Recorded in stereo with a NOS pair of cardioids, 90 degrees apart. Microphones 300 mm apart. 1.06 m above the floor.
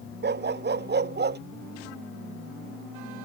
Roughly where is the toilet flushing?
I don't hear a toilet flushing.